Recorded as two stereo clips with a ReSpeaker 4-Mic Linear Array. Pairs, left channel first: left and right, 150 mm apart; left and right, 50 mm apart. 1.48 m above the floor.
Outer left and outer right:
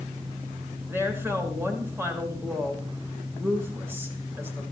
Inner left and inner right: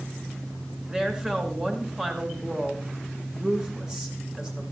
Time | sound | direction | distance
0.9 | a woman speaking | 15° right (ahead or behind) | 6 m